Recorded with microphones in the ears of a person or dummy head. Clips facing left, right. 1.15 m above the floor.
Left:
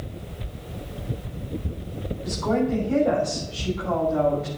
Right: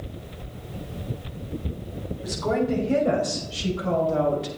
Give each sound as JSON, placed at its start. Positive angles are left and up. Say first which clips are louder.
{"t": 2.2, "sound": "a woman speaking", "louder": "left 1 dB", "side_deg": -40, "distance_m": 6.5}